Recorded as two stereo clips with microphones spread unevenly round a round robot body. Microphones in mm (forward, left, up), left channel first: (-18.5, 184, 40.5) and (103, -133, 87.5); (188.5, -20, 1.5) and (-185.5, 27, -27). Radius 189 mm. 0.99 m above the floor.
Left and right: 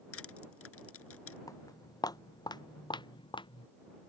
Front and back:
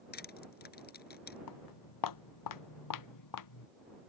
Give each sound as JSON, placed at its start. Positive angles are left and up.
{"t": 0.1, "sound": "crushing", "azimuth_deg": 60}
{"t": 1.5, "sound": "footsteps", "azimuth_deg": 30}